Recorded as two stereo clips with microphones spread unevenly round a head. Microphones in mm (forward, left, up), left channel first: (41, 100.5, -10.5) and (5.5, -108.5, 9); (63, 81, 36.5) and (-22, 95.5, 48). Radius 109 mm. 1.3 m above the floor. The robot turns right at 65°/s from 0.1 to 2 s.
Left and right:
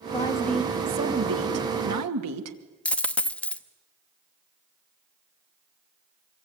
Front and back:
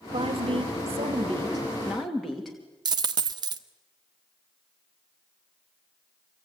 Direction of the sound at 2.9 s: 170° left.